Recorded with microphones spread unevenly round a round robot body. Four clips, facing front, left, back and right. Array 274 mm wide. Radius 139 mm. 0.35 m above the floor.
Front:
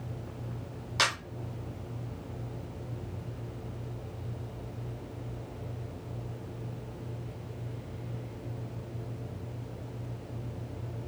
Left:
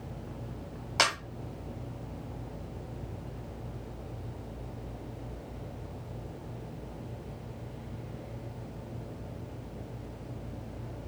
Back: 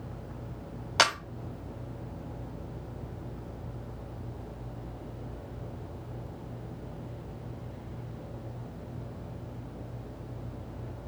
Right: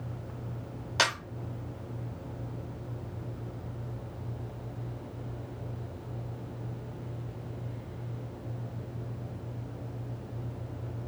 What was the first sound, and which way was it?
A camera shutter, 170° left.